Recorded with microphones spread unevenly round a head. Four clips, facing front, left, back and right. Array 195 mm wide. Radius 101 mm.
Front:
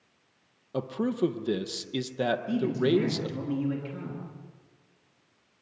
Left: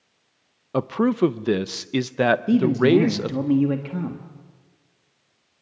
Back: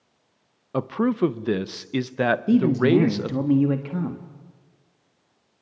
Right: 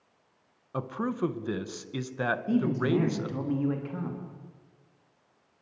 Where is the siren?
No siren in this recording.